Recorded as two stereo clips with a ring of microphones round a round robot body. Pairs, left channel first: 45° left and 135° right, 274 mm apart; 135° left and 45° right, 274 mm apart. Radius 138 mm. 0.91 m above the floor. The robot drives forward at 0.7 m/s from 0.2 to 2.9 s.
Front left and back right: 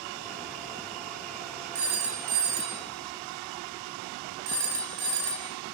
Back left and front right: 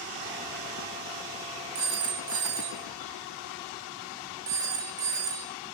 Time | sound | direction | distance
1.8 | a phone ringing | 90° right | 1.3 m